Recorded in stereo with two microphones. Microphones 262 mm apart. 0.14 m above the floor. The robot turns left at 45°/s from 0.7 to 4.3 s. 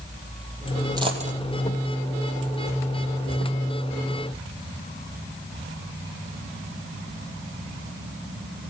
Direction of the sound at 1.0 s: 15° right (ahead or behind).